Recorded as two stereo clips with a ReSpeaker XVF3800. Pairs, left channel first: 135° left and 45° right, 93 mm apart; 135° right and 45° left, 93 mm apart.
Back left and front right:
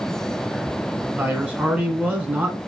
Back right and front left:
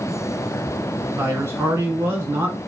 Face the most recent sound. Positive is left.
turn(degrees=15)